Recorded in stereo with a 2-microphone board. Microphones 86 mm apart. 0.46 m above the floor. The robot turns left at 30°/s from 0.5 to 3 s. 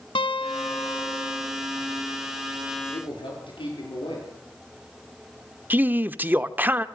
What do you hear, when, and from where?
0.1 s a guitar: 75° left, 1.4 m; by 1.5 s 45° left, 1.4 m
2.9 s a man speaking: 70° left (ahead or behind), 10 m; by 4.3 s 65° left (ahead or behind), 10 m
5.7 s a man speaking: 20° right (ahead or behind), 0.8 m